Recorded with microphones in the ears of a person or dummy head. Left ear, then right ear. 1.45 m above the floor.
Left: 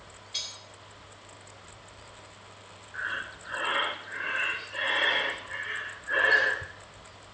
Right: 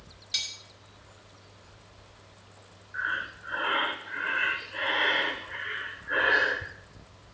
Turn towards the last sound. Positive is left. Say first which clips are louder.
# right 3 dB
turn(degrees=5)  # may be behind; listen again after turning